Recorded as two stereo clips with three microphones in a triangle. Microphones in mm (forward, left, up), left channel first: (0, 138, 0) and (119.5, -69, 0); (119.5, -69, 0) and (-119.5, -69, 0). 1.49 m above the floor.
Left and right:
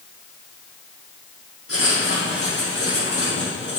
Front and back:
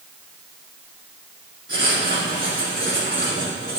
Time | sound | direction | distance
1.7 | writing | 140° left | 4.5 m